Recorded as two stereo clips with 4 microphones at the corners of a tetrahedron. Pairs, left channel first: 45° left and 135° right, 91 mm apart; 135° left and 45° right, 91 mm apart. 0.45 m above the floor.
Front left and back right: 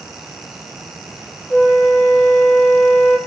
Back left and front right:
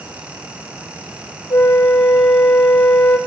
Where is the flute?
120° left, 3 m.